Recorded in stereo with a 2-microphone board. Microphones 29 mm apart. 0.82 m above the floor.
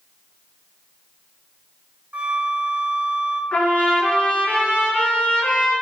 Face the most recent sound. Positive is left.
turn(degrees=65)  # may be behind; listen again after turning